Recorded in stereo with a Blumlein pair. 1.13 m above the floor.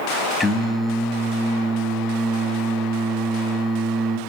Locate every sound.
0.4 s singing: 5° left, 0.8 m